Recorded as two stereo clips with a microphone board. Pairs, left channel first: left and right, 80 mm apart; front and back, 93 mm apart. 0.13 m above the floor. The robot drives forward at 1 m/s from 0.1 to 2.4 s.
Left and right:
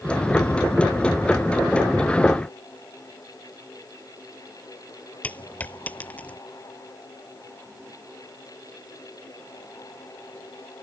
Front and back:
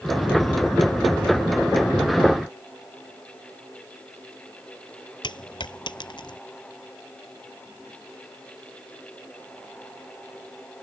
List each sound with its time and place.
5.2 s a dropped coin: 20° left